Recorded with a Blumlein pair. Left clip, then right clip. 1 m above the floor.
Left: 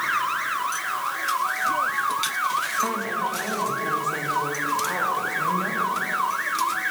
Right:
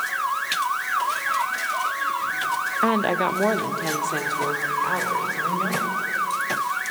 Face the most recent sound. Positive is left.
turn(degrees=-5)